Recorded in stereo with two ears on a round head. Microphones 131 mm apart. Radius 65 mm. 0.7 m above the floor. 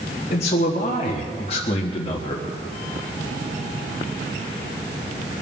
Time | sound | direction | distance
0.3 | a man speaking | 45° left (ahead or behind) | 1.6 m